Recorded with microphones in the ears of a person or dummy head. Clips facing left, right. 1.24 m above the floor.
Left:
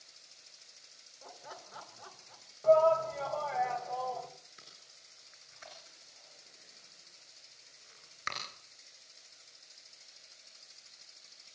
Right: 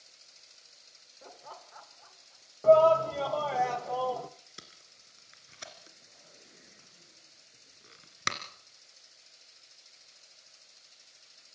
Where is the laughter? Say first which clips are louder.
Right 1 dB; 30° right (ahead or behind), 0.6 m; by 2.5 s 75° left (ahead or behind), 1.5 m.